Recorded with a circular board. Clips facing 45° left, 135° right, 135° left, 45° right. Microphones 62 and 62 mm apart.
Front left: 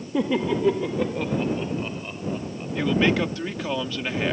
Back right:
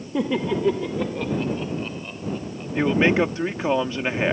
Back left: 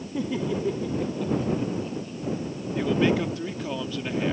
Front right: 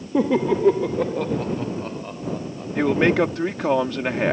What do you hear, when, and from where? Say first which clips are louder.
0.1 s laughter: even, front right 9 dB; 45° right; by 2.6 s 35° right
2.8 s a man speaking: back right 3 dB, front right 5 dB; 70° right